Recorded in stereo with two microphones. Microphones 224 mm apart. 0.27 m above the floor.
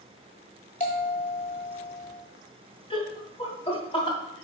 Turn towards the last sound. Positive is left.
turn(degrees=20)  # may be behind; listen again after turning